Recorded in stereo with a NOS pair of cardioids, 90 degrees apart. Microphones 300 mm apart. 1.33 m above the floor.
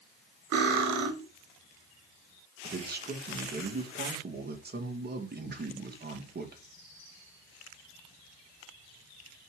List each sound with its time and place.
0.5 s cutlery clinking: 70° right, 1.8 m
2.6 s a man speaking: 35° right, 1.9 m